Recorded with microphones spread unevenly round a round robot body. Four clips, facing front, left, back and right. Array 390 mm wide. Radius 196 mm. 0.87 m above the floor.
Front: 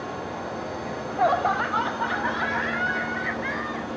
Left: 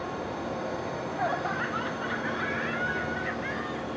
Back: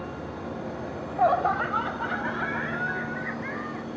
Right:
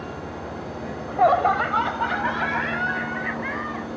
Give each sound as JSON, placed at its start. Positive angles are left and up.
{"t": 0.8, "sound": "laughter", "azimuth_deg": -90}